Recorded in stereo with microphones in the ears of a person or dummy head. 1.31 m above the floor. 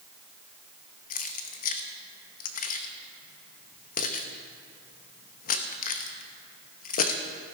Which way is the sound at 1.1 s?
45° left (ahead or behind).